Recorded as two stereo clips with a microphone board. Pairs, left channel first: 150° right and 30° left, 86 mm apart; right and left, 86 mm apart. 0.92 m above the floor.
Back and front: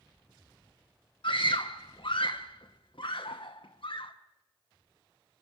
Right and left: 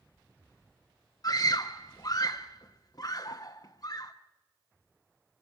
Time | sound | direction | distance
1.2 | a scream | 135° right | 0.9 m